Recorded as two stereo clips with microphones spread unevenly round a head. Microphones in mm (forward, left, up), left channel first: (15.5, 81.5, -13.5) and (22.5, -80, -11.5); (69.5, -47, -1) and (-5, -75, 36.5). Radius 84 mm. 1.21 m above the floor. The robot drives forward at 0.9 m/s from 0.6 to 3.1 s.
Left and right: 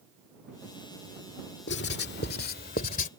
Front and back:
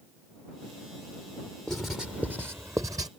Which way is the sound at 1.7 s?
115° left.